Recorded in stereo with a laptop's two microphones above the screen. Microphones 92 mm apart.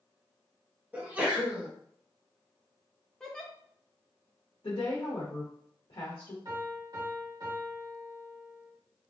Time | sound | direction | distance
0.9 | a sneeze | 15° right (ahead or behind) | 0.8 m
3.2 | a giggle | 10° left (ahead or behind) | 0.7 m
4.6 | a woman speaking | 70° left (ahead or behind) | 1.1 m
6.5 | a piano | 45° right (ahead or behind) | 1.8 m